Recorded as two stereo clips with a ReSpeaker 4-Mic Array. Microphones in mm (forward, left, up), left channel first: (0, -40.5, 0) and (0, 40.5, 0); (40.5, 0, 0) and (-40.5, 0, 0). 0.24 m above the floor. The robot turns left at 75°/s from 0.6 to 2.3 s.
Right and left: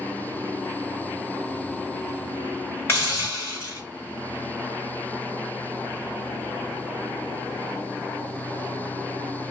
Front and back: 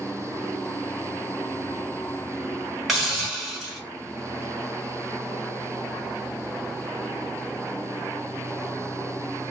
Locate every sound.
2.9 s a hiss: 90° right, 1.7 m